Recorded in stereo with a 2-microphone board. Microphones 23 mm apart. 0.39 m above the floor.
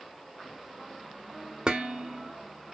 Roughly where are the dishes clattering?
Right.